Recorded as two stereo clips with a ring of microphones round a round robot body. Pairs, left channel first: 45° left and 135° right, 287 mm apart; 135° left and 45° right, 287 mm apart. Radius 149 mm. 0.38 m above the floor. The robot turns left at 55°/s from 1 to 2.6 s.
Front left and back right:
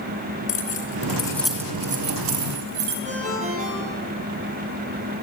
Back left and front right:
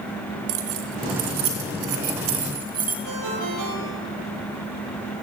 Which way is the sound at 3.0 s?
70° right.